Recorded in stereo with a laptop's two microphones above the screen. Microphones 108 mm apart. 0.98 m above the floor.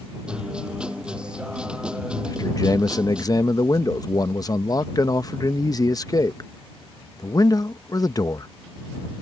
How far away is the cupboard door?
I don't hear a cupboard door.